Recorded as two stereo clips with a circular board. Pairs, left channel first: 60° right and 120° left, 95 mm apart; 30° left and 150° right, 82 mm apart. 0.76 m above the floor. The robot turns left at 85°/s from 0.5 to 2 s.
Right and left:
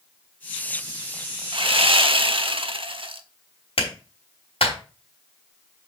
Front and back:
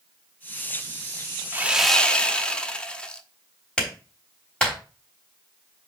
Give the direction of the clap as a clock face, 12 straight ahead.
2 o'clock.